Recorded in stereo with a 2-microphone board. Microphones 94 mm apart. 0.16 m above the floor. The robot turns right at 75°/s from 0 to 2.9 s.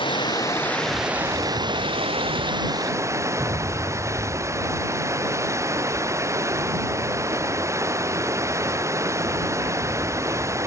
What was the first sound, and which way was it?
Running water, 110° left.